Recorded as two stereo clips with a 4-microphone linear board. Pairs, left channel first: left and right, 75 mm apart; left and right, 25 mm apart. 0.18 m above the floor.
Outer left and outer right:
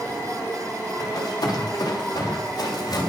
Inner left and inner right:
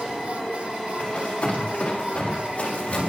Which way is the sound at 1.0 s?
55° left (ahead or behind).